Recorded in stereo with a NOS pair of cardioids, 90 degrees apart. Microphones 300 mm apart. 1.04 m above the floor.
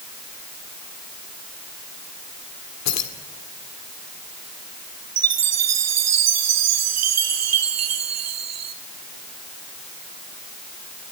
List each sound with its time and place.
2.9 s keys jangling: 60° left, 2.5 m
5.2 s a chime: 60° right, 2 m